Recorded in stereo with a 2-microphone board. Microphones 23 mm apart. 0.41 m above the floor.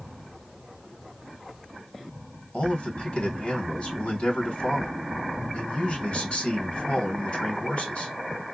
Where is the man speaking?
60° left (ahead or behind), 3 m.